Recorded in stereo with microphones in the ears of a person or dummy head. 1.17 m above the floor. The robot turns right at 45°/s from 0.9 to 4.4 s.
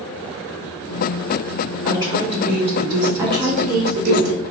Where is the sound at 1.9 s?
20° right (ahead or behind), 2 m; by 4.2 s 55° right (ahead or behind), 2 m.